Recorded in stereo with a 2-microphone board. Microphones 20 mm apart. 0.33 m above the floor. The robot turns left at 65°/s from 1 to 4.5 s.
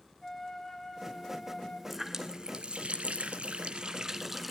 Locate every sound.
0.2 s a flute: 165° left, 4 m; by 1.8 s 115° left, 4 m
1.9 s a running tap: 5° right, 2.5 m; by 4.5 s 175° right, 2.5 m